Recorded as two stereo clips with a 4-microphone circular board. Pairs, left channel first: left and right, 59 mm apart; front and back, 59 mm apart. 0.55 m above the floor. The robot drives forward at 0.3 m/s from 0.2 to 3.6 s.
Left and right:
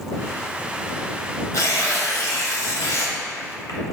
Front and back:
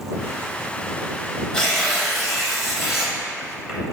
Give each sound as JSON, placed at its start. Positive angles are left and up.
{"t": 1.5, "sound": "tearing paper", "azimuth_deg": 75, "distance_m": 1.6}